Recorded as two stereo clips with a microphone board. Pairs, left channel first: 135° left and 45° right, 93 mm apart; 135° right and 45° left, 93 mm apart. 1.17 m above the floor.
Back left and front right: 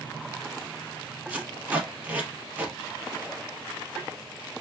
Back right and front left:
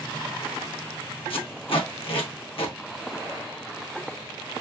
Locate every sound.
1.3 s tape being pulled: 115° right, 1.2 m